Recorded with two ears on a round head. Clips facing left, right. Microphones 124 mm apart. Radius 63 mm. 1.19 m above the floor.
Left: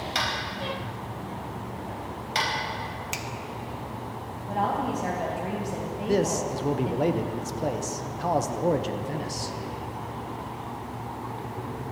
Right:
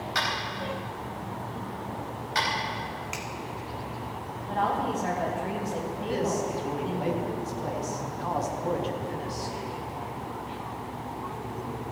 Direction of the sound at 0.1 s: 30° left (ahead or behind).